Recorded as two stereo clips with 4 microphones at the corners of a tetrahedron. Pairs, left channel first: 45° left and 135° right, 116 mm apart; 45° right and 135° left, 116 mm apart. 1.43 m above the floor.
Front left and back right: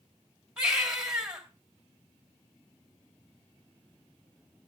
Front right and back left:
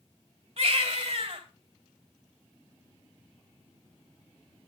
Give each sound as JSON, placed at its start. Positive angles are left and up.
{"t": 0.6, "sound": "a baby crying", "azimuth_deg": 145, "distance_m": 3.0}